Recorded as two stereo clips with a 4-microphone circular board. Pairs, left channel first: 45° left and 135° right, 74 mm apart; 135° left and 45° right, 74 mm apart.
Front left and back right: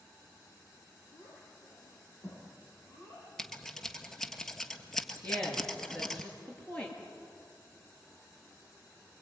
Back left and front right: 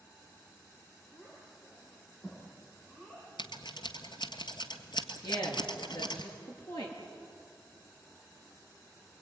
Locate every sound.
1.1 s a child speaking: 85° left, 10 m; by 3.3 s 90° left, 11 m
3.4 s scissors: 130° left, 1.6 m
5.2 s a woman speaking: 125° left, 6.5 m